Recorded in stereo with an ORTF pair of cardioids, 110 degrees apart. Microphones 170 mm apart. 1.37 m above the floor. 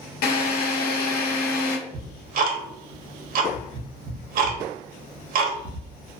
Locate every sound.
0.2 s a drill: 65° left, 0.7 m
1.9 s ticking: 60° right, 0.7 m